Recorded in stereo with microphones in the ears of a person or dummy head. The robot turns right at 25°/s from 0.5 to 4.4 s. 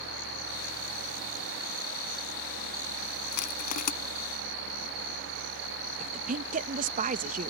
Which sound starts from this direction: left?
Crushing, at 3.3 s.